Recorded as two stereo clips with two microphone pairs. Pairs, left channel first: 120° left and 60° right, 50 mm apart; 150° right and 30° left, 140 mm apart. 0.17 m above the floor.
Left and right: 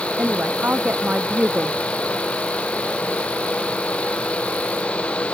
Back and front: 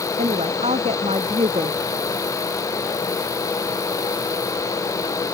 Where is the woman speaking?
5° right.